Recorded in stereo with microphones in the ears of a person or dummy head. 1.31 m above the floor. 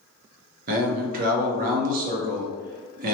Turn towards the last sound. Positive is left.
turn(degrees=-45)  # may be behind; listen again after turning